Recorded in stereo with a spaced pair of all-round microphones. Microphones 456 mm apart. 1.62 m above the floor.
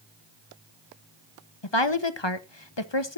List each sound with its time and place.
1.6 s a woman speaking: 65° left (ahead or behind), 1.2 m